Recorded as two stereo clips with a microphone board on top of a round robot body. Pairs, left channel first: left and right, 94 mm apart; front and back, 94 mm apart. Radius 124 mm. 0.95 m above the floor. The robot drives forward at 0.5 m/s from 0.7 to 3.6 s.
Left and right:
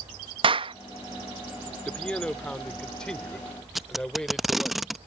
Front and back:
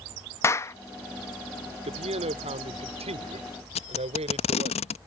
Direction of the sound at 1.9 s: 175° left.